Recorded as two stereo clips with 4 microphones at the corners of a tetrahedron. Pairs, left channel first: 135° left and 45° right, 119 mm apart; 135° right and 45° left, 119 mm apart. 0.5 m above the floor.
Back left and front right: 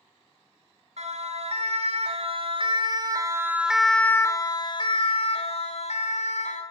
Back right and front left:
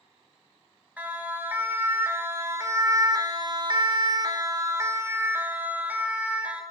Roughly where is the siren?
Ahead right.